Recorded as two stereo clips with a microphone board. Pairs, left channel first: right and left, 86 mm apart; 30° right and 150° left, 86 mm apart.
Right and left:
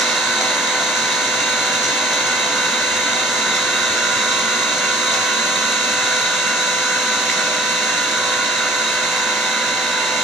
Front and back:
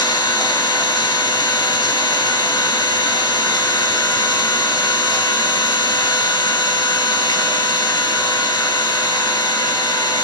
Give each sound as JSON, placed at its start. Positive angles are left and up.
{"t": 0.0, "sound": "an engine running", "azimuth_deg": 0, "distance_m": 2.0}